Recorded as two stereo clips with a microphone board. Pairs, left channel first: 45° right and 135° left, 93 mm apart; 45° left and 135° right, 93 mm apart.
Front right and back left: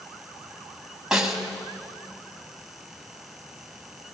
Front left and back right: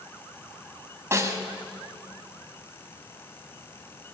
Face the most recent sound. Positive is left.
turn(degrees=-150)